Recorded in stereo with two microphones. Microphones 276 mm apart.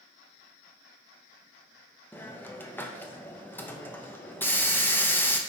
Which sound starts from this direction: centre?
A hiss, at 2.1 s.